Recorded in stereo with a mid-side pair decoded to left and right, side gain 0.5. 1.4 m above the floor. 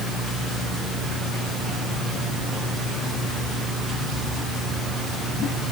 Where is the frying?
I don't hear frying.